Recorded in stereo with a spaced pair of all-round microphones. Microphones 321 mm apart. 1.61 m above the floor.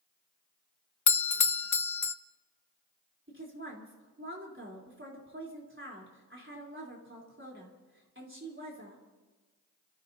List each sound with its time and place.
1.1 s a doorbell: 65° left (ahead or behind), 0.5 m
3.3 s a woman speaking: 40° right (ahead or behind), 4 m